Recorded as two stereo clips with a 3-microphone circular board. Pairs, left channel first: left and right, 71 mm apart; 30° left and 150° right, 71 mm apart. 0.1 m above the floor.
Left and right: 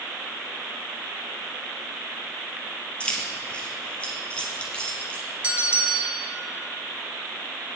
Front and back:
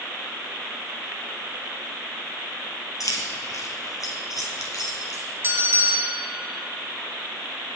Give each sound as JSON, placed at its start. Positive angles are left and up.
{"t": 3.0, "sound": "keys jangling", "azimuth_deg": 20, "distance_m": 1.8}
{"t": 5.4, "sound": "a bell", "azimuth_deg": -145, "distance_m": 1.3}